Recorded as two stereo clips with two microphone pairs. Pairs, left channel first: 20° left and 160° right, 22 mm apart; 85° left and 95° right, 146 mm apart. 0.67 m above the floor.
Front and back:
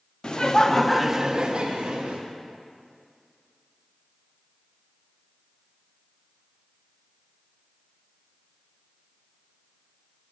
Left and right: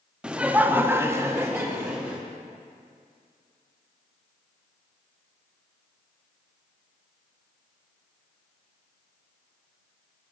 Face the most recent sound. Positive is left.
turn(degrees=-170)